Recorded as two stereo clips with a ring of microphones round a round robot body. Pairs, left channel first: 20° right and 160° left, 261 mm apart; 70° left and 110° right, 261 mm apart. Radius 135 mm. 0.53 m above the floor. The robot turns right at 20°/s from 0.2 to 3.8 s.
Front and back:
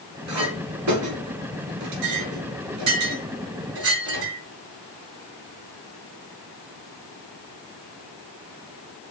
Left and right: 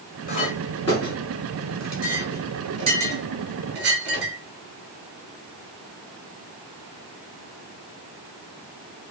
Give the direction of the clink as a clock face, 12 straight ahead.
8 o'clock.